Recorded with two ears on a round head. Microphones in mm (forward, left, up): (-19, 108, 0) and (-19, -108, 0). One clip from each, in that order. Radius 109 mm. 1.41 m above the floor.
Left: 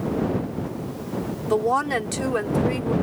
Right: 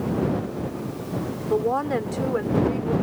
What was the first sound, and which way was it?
A woman speaking, 80° left.